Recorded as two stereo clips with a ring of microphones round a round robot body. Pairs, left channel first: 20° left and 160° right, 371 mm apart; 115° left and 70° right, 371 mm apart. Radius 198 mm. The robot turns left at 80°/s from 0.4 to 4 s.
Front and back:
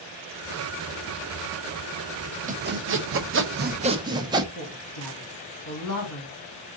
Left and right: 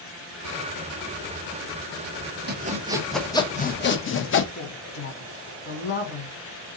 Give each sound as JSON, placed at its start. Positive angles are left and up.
{"t": 2.5, "sound": "sawing", "azimuth_deg": -105, "distance_m": 0.7}
{"t": 4.5, "sound": "a woman speaking", "azimuth_deg": 60, "distance_m": 2.0}